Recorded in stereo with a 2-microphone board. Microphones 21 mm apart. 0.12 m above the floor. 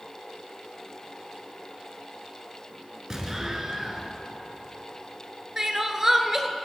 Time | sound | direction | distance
3.1 | an explosion | 25° right (ahead or behind) | 1.0 m
5.6 | crying | 20° right (ahead or behind) | 0.6 m